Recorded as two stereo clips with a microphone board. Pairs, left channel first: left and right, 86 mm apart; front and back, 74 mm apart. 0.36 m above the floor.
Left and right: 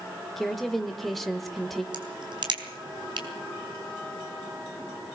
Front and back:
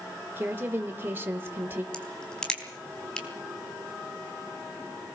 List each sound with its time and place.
0.4 s a woman speaking: 175° left, 1.3 m
1.9 s a crack: 80° right, 3.5 m